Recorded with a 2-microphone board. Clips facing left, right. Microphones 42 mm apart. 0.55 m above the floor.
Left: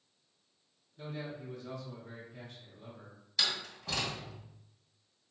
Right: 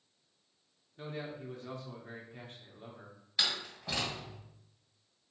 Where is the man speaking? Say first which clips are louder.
Even; 45° right (ahead or behind), 1.0 m.